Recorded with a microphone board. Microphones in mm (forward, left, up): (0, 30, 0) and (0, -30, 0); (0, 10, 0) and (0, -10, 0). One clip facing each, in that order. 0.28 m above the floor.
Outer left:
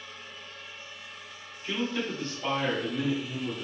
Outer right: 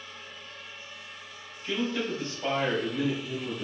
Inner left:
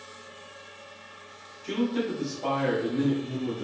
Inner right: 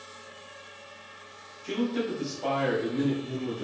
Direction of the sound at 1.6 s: 10° left (ahead or behind).